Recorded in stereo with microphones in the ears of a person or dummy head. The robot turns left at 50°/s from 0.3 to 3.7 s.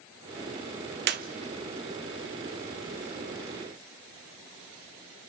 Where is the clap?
55° right (ahead or behind), 0.8 m; by 1.3 s 45° right (ahead or behind), 0.8 m.